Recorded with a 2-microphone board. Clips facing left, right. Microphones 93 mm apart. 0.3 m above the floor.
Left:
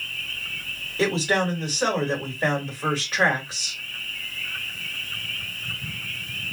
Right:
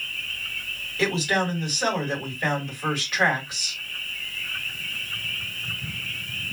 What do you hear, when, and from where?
1.0 s a man speaking: 30° left (ahead or behind), 1.7 m